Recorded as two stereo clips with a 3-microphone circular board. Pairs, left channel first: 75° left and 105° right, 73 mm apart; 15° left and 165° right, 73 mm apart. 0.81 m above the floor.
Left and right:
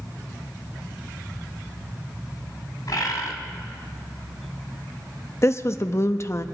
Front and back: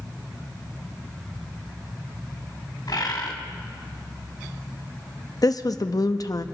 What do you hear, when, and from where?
2.9 s a bird: 40° left, 1.8 m
5.4 s a woman speaking: 30° left, 0.7 m